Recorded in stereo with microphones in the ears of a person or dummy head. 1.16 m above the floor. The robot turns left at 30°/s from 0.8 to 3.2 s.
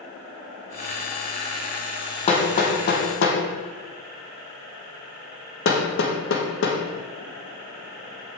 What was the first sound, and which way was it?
Hammering, 25° left (ahead or behind).